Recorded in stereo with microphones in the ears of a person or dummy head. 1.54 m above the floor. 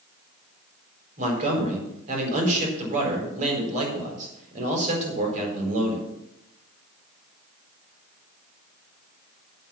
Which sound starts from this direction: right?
A man speaking, at 1.2 s.